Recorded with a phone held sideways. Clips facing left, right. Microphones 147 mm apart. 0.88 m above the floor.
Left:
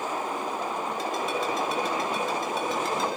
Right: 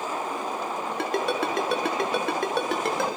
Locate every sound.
1.0 s a ringtone: 65° right (ahead or behind), 5 m